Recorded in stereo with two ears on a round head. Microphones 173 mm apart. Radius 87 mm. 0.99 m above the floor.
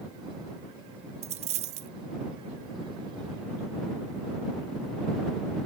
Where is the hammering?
No hammering in this recording.